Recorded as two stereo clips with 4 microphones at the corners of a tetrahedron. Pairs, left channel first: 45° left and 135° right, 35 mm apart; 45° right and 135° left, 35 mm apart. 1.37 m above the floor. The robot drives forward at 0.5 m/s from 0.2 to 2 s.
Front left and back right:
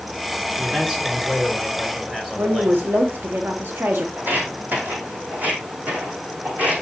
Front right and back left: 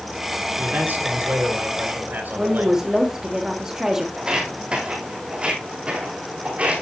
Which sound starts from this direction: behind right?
A woman speaking, at 2.4 s.